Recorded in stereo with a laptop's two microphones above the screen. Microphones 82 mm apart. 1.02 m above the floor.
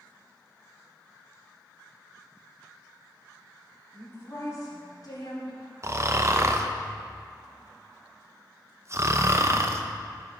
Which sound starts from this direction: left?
A woman speaking, at 3.9 s.